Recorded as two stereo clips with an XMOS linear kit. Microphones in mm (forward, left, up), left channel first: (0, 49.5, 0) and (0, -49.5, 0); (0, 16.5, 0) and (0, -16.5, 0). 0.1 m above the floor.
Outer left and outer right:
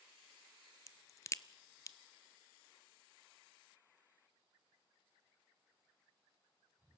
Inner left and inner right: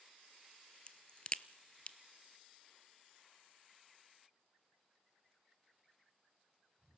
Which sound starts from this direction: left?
A crack, at 0.9 s.